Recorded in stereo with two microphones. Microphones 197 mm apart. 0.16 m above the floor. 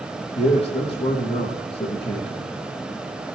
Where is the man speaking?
30° left (ahead or behind), 6 m.